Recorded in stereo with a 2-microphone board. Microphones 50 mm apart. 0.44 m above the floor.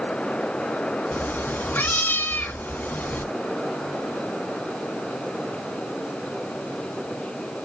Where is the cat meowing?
40° left (ahead or behind), 1.2 m.